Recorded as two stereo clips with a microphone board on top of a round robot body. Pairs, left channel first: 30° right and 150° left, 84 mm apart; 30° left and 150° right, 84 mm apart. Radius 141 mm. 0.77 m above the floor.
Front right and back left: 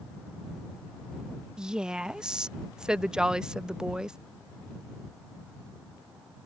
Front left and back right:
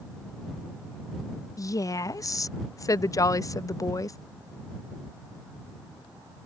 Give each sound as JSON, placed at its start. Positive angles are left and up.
{"t": 1.6, "sound": "a woman speaking", "azimuth_deg": 70}